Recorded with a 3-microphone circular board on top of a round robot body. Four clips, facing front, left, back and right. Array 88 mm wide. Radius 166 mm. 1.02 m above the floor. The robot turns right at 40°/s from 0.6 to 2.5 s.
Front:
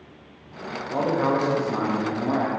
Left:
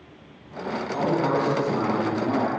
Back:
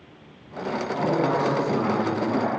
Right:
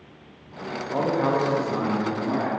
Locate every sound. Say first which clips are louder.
0.9 s a man speaking: right 1 dB, front 1 dB; 50° right, 2 m; by 2.5 s 10° left, 2 m